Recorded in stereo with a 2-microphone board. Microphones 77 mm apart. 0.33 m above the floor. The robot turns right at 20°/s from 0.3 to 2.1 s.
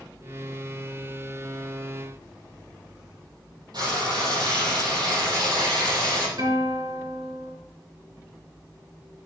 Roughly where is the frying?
Right.